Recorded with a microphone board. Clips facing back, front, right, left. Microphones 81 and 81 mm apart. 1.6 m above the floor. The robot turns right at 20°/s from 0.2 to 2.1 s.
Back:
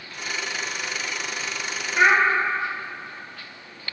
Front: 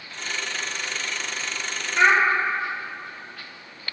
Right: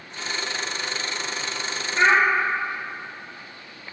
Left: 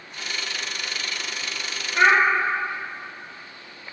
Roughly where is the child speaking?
Left.